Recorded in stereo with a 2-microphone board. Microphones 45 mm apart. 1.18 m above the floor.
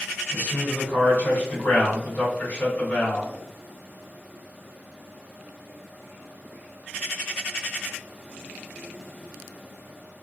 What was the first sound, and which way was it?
A man speaking, 40° left (ahead or behind).